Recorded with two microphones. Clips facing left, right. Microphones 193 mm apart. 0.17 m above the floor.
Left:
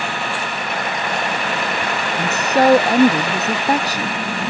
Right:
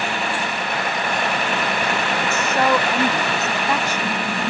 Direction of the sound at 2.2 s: 35° left (ahead or behind).